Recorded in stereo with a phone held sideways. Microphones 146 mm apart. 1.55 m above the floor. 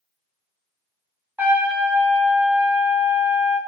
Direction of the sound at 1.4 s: 15° right (ahead or behind).